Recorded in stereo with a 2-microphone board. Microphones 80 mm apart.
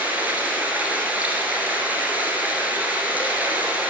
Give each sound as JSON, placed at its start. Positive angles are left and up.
{"t": 0.0, "sound": "running water", "side_deg": -20, "distance_m": 1.5}